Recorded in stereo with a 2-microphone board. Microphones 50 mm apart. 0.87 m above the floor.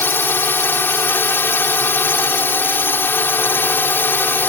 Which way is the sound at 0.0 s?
45° left (ahead or behind).